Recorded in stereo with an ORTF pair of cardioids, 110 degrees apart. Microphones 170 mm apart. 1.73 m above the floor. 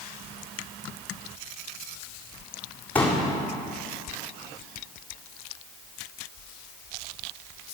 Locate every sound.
3.0 s a pop: 10° left, 3.5 m